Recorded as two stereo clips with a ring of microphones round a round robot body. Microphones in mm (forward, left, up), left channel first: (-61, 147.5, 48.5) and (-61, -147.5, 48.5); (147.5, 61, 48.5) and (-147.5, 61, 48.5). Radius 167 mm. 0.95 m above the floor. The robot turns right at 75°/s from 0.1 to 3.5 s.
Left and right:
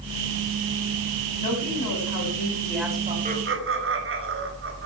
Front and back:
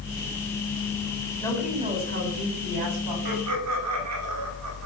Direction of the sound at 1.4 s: 75° left.